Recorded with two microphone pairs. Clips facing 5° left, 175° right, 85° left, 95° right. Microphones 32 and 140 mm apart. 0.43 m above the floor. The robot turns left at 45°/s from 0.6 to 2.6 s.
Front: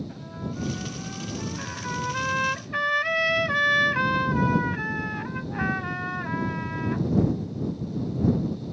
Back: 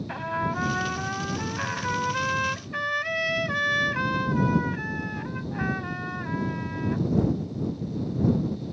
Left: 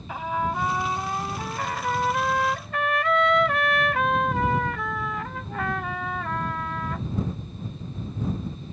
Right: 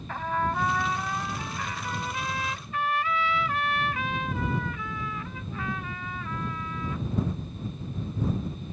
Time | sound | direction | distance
0.1 | a trumpet | 165° left | ?